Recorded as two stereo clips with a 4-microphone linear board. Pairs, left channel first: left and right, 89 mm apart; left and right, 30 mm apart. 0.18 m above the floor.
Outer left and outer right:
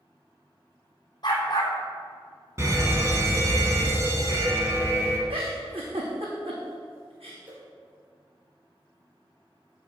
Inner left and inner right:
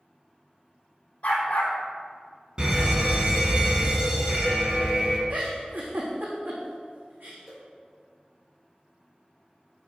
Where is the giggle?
75° right (ahead or behind), 3.5 m.